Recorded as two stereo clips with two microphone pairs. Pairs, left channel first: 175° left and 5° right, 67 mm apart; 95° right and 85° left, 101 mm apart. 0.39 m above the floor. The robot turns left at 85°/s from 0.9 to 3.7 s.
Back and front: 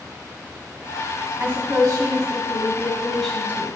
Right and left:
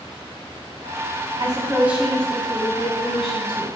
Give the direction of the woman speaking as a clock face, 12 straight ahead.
10 o'clock.